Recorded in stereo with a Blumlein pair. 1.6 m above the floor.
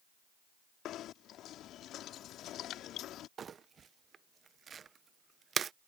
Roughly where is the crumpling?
Ahead.